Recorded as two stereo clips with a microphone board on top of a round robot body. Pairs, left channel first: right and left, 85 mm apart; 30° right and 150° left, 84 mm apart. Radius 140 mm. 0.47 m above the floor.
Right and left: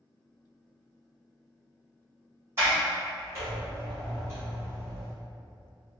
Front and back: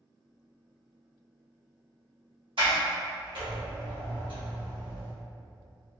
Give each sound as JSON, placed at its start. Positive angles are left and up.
{"t": 2.6, "sound": "a sliding door", "azimuth_deg": 150, "distance_m": 1.7}